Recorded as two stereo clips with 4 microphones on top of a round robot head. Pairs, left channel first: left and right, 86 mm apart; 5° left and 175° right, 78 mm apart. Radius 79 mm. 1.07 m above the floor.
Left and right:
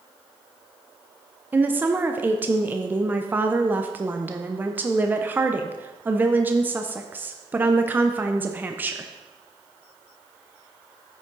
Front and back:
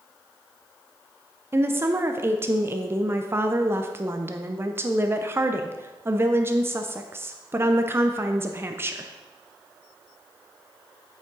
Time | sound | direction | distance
1.5 | a woman speaking | 145° right | 0.6 m